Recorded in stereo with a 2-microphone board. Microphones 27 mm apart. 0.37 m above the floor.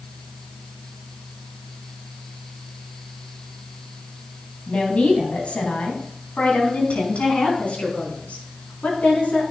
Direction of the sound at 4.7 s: 50° left (ahead or behind).